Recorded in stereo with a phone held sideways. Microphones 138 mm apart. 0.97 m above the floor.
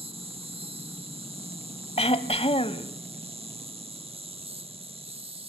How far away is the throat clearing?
About 1.0 m.